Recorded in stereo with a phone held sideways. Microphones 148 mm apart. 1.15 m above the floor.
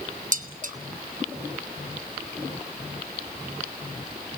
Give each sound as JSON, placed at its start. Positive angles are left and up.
{"t": 0.3, "sound": "dishes clattering", "side_deg": -55, "distance_m": 1.2}